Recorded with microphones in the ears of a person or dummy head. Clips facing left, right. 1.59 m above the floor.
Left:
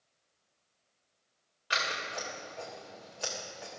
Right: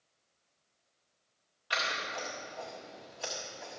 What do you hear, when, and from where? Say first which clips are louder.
1.7 s scissors: even; 25° left (ahead or behind), 1.6 m